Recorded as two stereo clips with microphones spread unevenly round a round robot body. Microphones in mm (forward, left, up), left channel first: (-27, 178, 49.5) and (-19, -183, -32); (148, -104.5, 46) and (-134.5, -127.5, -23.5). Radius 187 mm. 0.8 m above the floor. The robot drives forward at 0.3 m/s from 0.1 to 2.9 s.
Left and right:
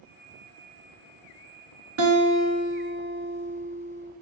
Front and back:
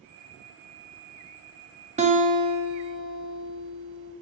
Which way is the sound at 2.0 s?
120° right.